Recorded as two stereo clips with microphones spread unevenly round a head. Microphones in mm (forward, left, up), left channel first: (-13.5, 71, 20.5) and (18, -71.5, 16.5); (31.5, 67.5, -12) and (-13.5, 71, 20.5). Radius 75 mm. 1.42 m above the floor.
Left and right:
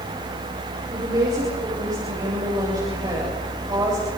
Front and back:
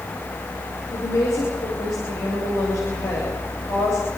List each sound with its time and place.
0.9 s a woman speaking: 15° right, 8 m